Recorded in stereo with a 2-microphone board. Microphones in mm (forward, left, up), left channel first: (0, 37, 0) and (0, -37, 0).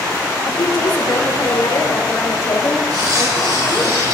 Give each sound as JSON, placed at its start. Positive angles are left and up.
{"t": 0.5, "sound": "a woman speaking", "side_deg": 80, "distance_m": 4.0}
{"t": 2.9, "sound": "cutlery clinking", "side_deg": -65, "distance_m": 7.0}